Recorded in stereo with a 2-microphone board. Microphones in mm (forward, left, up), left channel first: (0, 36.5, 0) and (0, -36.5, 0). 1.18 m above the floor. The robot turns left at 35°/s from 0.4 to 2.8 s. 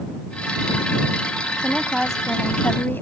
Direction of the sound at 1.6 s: 165° right.